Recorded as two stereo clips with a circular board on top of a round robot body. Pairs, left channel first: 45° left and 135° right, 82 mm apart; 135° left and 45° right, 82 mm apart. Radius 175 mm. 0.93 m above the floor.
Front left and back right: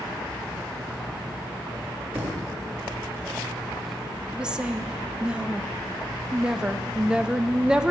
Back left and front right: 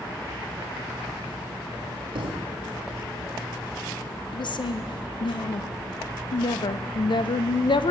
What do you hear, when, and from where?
2.1 s a thud: 60° right, 0.7 m
4.3 s a woman speaking: 145° left, 0.6 m